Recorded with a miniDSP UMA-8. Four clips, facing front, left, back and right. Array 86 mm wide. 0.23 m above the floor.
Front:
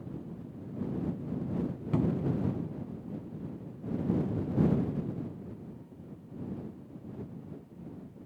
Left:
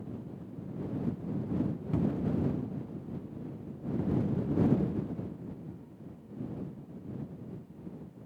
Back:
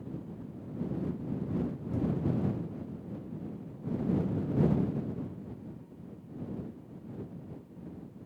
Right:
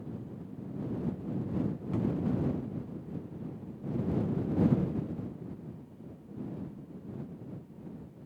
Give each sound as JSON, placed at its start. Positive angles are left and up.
{"t": 1.9, "sound": "a cupboard door", "azimuth_deg": 0}